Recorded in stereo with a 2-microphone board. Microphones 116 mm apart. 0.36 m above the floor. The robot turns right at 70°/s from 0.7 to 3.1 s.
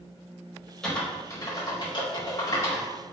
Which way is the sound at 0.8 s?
10° left (ahead or behind).